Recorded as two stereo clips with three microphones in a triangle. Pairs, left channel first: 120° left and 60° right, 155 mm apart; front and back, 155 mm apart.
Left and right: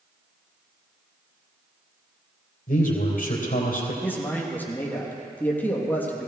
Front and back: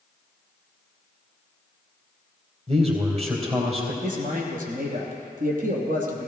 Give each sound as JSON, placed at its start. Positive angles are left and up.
{"t": 2.7, "sound": "a man speaking", "azimuth_deg": 135, "distance_m": 3.5}
{"t": 4.0, "sound": "a man speaking", "azimuth_deg": -160, "distance_m": 3.0}